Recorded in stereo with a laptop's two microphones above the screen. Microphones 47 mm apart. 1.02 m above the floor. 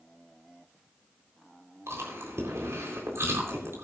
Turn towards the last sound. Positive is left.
turn(degrees=-75)  # may be behind; listen again after turning